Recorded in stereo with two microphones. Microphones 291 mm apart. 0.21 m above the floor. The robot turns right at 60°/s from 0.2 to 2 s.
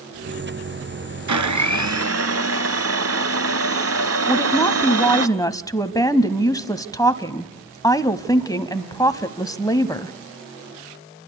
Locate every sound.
1.3 s a blender: 100° right, 1.0 m; by 5.3 s 55° right, 1.0 m
4.3 s a woman speaking: 10° left (ahead or behind), 1.0 m